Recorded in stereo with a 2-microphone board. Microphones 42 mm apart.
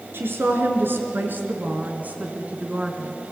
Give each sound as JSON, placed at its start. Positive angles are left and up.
{"t": 0.1, "sound": "a woman speaking", "side_deg": -70, "distance_m": 4.5}